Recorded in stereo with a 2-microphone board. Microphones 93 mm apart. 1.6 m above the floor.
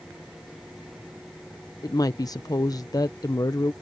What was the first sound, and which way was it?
A woman speaking, 45° left (ahead or behind).